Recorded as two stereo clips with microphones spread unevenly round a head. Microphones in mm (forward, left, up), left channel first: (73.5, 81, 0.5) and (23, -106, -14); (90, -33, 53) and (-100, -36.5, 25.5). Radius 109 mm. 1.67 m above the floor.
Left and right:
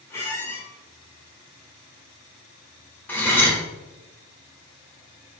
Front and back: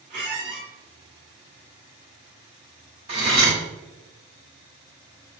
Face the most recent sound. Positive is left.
turn(degrees=130)